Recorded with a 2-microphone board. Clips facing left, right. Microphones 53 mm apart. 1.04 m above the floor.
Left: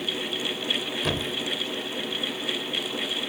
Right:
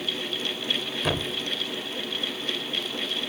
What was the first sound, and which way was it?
A thud, centre (ahead or behind).